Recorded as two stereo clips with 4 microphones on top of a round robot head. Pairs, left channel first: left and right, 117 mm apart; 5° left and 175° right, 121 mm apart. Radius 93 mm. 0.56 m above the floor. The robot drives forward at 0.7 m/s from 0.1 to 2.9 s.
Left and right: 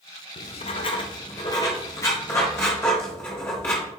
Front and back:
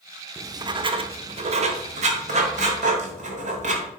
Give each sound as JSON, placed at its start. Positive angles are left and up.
{"t": 0.4, "sound": "writing", "azimuth_deg": 115, "distance_m": 0.7}